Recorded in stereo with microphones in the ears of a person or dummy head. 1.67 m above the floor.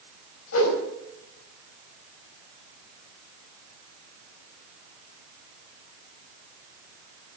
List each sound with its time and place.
0.5 s a whoosh: 75° left (ahead or behind), 4.5 m